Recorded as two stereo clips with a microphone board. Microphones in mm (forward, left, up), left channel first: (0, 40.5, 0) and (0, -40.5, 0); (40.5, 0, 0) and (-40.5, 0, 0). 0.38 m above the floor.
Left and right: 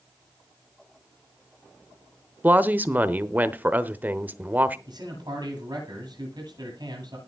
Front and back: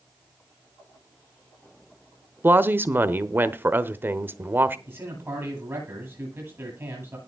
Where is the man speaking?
120° right, 9.5 m.